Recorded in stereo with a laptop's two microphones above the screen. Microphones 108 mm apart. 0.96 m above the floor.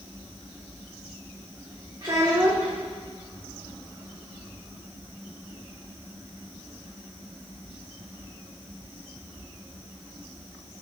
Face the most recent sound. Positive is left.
turn(degrees=-40)  # may be behind; listen again after turning